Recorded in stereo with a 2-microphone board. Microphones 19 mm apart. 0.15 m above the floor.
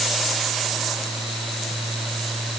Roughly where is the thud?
No thud in this recording.